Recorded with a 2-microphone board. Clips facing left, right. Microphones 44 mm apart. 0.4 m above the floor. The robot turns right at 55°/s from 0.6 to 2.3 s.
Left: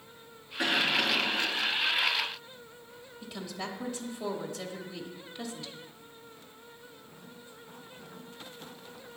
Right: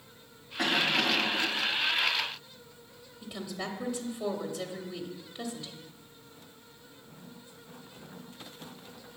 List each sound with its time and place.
0.6 s a cough: 110° right, 2.5 m; by 1.5 s 60° right, 2.5 m
3.2 s a woman speaking: 5° right (ahead or behind), 0.8 m